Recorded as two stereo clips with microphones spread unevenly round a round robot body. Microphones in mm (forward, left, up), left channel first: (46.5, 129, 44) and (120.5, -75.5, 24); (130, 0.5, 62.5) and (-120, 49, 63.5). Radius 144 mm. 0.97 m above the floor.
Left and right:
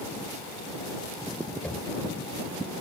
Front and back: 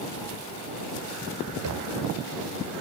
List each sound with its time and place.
1.6 s knocking: 165° right